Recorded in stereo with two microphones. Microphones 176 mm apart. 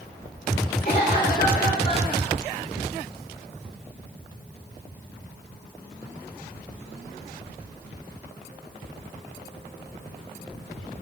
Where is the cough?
55° left (ahead or behind), 1.7 m.